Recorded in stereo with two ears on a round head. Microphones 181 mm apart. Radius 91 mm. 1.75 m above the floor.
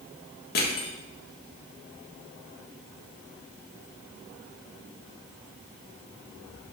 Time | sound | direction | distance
0.6 | crushing | 50° left (ahead or behind) | 1.5 m